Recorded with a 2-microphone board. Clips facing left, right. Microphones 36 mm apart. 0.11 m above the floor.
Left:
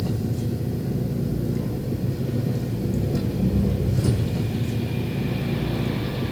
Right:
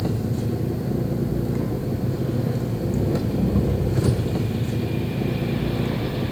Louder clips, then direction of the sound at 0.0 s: Right 2 dB; 50° right (ahead or behind).